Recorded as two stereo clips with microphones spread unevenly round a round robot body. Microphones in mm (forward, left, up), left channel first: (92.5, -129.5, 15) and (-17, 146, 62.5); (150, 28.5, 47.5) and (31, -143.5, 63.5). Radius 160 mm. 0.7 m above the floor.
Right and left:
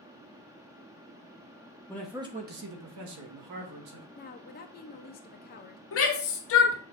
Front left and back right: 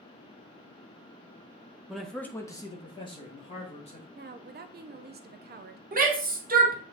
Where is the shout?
85° right, 1.5 m.